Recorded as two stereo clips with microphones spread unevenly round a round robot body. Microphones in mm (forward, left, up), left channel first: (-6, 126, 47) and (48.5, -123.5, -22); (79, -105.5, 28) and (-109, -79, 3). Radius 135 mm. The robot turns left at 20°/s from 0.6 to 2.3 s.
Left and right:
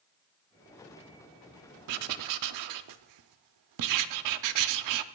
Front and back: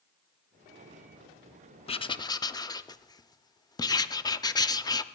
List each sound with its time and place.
1.9 s writing: 75° right, 0.5 m; by 5.0 s 80° right, 0.5 m